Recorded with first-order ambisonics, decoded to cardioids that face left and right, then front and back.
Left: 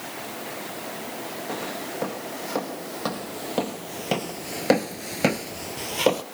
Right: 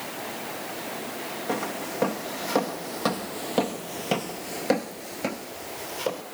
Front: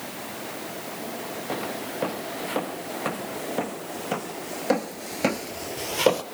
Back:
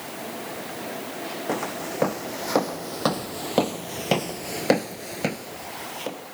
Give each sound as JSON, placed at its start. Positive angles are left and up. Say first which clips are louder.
{"t": 1.5, "sound": "footsteps", "louder": "right 3 dB, back 3 dB", "azimuth_deg": -165, "distance_m": 2.0}